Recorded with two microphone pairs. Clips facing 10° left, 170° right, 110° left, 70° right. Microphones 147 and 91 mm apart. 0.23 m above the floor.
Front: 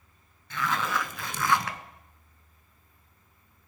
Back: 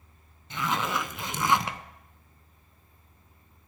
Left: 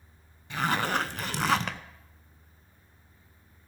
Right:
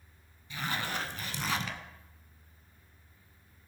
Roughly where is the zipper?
Behind left.